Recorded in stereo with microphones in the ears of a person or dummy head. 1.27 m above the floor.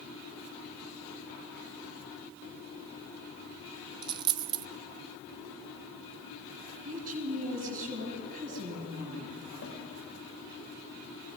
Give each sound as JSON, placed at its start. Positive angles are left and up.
{"t": 4.0, "sound": "a dropped coin", "side_deg": -25, "distance_m": 0.7}
{"t": 6.8, "sound": "a woman speaking", "side_deg": -45, "distance_m": 7.5}
{"t": 9.6, "sound": "a snare drum", "side_deg": 70, "distance_m": 5.5}